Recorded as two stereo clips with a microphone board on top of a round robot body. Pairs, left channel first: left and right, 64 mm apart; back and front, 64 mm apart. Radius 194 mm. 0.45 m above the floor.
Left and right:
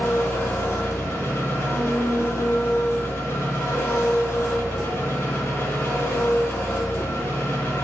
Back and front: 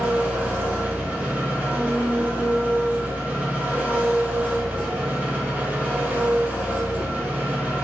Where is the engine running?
55° left, 1.4 m.